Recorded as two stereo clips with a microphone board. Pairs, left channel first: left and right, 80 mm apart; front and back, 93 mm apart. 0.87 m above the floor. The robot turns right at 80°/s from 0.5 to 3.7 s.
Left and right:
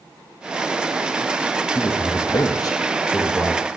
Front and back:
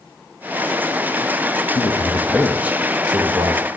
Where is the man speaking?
40° left, 0.6 m; by 3.6 s 170° right, 0.6 m.